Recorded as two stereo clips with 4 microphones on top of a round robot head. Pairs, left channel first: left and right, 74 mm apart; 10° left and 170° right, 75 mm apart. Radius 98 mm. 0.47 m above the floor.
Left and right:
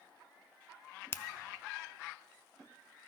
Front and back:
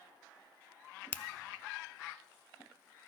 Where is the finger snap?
60° left, 0.6 m.